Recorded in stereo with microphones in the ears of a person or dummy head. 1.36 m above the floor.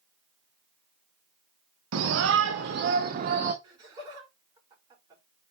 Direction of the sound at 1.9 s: 85° right.